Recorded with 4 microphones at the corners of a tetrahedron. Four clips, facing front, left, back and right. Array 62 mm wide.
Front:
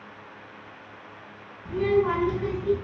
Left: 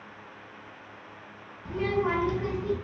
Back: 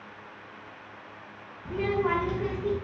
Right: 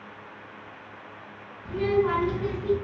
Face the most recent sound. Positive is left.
turn(degrees=160)